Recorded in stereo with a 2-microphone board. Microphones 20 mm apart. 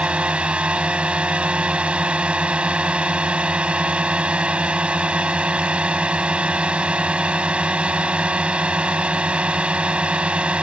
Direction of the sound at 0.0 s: 65° right (ahead or behind).